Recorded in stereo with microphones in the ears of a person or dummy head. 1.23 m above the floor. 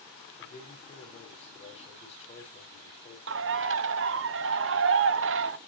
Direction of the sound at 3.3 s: 55° right (ahead or behind).